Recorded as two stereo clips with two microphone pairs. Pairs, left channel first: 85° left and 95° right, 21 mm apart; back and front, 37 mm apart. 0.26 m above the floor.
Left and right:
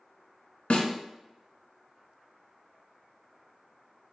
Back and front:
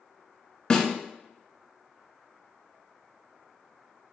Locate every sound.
0.7 s a snare drum: 105° left, 0.8 m